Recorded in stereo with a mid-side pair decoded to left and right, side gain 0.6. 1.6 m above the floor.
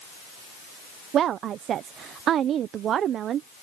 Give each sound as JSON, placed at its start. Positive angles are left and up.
{"t": 1.1, "sound": "a woman speaking", "azimuth_deg": -50}